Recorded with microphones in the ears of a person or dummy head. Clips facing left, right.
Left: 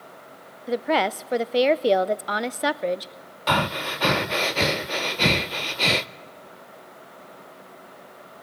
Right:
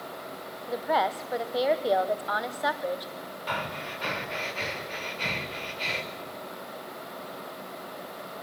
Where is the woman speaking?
40° left (ahead or behind), 0.5 m.